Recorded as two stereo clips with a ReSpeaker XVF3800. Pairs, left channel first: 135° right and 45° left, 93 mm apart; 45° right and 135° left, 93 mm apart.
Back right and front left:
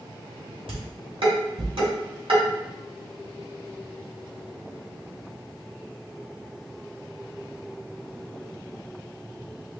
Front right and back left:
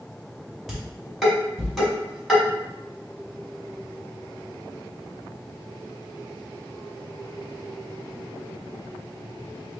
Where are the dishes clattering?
45° left, 2 m.